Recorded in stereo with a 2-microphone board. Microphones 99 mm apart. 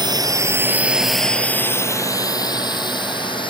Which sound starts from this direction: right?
A drone, at 0.0 s.